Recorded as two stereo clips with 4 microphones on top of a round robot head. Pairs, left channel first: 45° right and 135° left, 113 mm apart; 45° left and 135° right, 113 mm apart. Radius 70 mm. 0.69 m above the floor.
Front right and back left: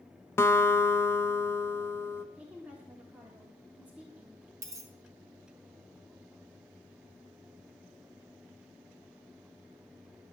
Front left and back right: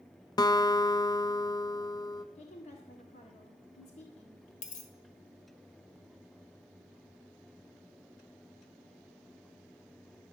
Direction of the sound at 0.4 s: 15° left.